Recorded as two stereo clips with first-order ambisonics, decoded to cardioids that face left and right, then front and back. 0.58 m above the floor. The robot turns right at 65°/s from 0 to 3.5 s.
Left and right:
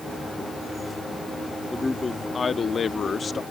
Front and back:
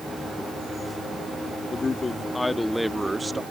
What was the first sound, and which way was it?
A man speaking, 15° left.